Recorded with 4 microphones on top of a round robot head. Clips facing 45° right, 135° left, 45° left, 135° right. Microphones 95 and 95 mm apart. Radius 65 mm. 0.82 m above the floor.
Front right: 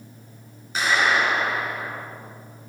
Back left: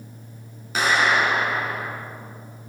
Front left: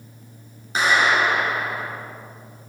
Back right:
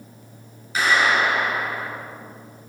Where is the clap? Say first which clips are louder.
Back left 1 dB, front left 1 dB; 110° left, 9.5 m.